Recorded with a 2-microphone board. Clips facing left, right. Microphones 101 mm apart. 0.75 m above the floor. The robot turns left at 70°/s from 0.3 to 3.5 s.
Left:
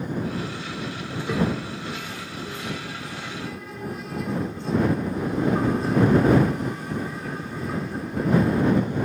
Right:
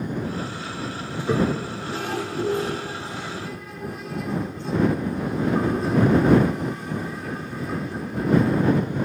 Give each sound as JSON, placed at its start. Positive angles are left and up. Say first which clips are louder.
{"t": 1.1, "sound": "a toilet flushing", "louder": "right 3 dB", "side_deg": -15}